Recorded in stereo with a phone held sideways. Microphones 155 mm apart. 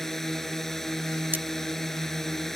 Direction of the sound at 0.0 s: Centre (ahead or behind).